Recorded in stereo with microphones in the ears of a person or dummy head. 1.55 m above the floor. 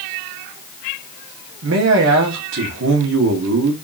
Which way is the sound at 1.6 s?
70° right (ahead or behind).